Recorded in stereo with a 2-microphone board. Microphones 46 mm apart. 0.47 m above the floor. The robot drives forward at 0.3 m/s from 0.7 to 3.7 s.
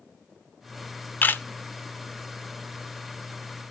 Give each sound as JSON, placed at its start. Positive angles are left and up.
{"t": 1.2, "sound": "a camera shutter", "side_deg": 40, "distance_m": 0.7}